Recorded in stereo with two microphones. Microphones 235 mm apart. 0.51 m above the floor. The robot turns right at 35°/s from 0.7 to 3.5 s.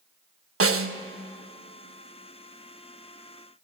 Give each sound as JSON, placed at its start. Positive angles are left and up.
{"t": 0.6, "sound": "a snare drum", "side_deg": -70, "distance_m": 0.5}